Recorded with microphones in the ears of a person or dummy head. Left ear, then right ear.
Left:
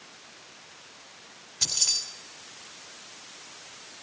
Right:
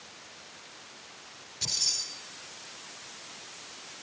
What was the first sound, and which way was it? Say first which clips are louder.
Keys jangling: left 3 dB; 35° left (ahead or behind).